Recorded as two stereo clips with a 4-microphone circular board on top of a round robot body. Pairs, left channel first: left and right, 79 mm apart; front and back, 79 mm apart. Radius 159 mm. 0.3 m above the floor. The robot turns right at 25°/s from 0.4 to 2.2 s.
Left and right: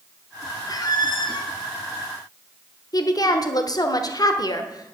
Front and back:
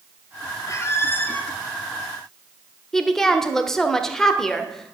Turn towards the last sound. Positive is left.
turn(degrees=85)